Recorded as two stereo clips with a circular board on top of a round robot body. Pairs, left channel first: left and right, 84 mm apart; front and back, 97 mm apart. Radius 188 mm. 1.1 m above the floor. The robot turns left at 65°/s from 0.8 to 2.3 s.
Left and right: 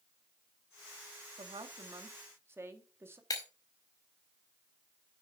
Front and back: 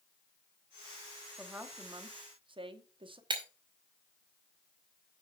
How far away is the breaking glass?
About 0.6 m.